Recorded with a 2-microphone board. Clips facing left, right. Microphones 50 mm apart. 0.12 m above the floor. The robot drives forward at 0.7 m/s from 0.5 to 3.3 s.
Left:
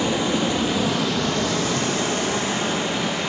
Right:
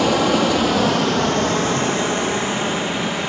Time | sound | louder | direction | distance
0.0 | running water | right 5 dB | 75° right (ahead or behind) | 0.8 m